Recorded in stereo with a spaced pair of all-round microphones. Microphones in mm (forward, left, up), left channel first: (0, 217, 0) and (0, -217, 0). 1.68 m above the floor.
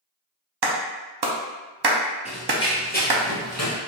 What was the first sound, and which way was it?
A clap, 60° right (ahead or behind).